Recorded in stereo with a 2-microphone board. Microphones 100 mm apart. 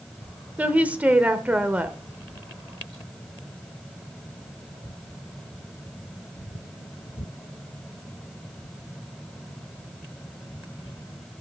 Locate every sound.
0.6 s a woman speaking: 15° right (ahead or behind), 0.9 m